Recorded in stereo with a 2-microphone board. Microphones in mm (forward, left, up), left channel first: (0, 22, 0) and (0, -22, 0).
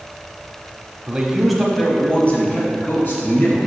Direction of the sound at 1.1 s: 20° right (ahead or behind).